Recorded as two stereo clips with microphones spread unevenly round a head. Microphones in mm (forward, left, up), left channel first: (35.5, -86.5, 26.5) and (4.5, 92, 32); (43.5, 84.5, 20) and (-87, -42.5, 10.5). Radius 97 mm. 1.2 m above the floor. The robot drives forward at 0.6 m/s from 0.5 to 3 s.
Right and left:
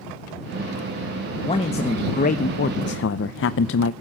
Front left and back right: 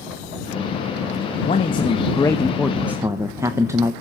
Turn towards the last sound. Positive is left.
turn(degrees=-60)